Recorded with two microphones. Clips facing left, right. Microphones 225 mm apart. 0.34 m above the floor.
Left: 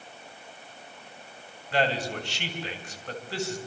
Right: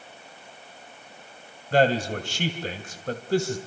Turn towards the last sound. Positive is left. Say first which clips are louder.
# right 6 dB
turn(degrees=-45)  # may be behind; listen again after turning